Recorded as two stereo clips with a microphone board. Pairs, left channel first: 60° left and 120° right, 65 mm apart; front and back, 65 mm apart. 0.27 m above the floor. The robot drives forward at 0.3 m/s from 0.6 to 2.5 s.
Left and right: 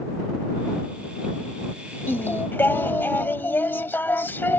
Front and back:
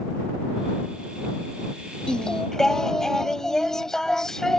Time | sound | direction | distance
2.1 | singing | 65° left | ?